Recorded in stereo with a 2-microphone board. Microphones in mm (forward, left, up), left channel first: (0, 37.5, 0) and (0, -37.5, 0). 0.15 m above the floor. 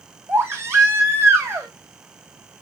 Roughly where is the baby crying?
Right.